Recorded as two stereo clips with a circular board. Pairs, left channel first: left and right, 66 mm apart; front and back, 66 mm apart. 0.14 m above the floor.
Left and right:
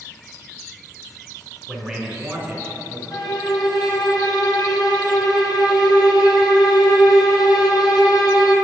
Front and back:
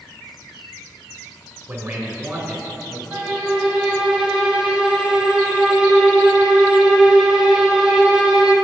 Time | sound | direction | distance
1.7 | a man speaking | 175° left | 1.2 m
3.1 | a violin | 100° left | 1.1 m